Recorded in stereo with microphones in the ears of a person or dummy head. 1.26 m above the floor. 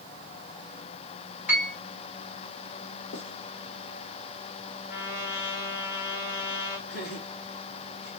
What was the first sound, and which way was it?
A piano, 10° right (ahead or behind).